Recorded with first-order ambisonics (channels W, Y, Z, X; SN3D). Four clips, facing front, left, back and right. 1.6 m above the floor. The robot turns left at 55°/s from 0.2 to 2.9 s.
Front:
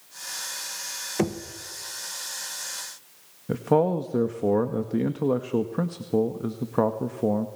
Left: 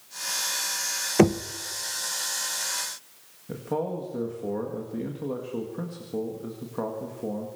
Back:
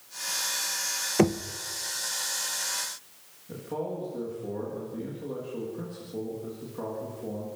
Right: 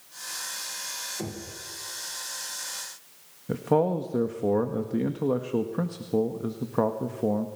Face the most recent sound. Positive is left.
turn(degrees=-25)